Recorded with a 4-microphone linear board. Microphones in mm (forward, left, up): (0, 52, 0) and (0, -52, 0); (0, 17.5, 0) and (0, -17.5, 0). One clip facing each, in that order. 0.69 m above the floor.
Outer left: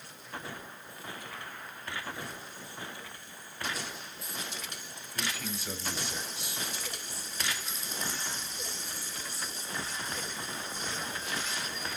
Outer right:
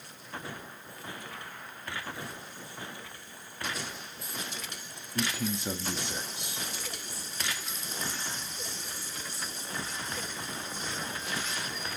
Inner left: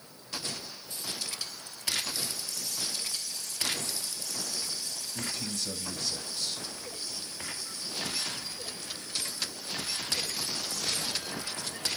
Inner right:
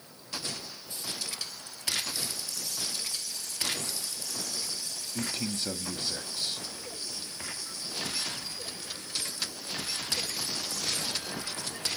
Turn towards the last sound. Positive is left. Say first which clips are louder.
# outer right 6 dB, inner right 3 dB
turn(degrees=-45)  # may be behind; listen again after turning